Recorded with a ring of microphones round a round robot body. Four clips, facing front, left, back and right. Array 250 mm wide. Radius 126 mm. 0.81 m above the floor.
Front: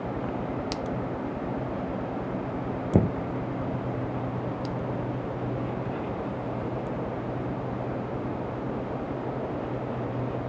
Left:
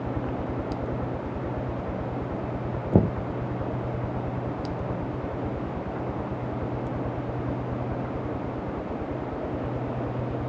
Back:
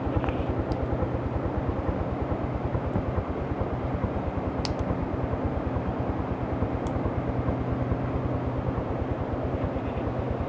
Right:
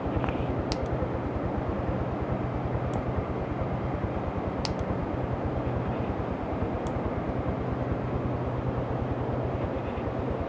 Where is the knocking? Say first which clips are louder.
Left 9 dB, front 6 dB; 60° left.